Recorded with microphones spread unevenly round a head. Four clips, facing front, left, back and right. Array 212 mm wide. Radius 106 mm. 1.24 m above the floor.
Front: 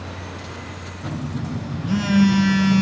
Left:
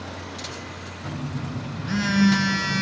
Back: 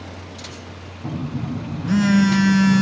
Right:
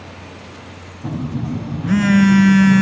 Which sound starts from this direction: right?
A phone buzzing, at 1.0 s.